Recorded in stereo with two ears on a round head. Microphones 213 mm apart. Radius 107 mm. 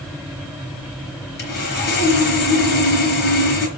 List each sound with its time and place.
1.4 s sawing: 45° left (ahead or behind), 4 m